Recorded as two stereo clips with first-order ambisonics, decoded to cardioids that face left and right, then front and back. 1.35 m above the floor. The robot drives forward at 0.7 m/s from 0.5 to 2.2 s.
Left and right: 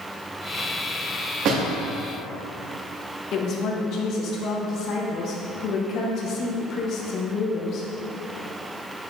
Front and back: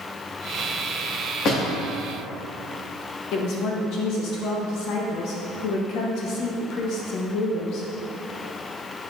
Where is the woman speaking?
40° left, 1.1 m.